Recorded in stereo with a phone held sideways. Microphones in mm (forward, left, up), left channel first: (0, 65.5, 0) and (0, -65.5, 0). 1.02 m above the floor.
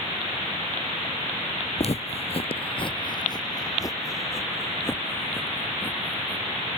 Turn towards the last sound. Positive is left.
turn(degrees=15)  # may be behind; listen again after turning